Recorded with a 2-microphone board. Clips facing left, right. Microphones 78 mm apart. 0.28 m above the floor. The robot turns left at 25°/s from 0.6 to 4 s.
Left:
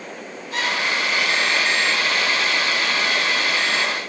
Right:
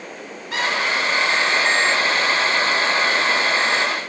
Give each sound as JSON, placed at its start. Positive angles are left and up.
{"t": 0.5, "sound": "a squeak", "side_deg": -70, "distance_m": 1.8}